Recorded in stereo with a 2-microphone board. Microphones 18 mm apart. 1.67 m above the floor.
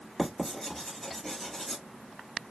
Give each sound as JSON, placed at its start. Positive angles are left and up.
{"t": 0.2, "sound": "writing", "side_deg": 5, "distance_m": 1.8}